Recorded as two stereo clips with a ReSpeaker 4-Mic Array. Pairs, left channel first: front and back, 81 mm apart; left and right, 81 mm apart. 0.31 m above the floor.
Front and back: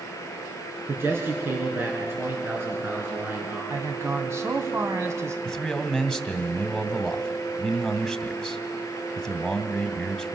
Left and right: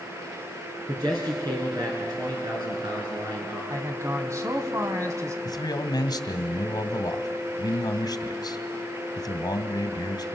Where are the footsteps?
No footsteps in this recording.